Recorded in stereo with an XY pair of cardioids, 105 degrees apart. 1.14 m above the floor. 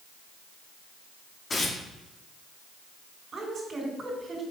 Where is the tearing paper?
30° left, 1.9 m.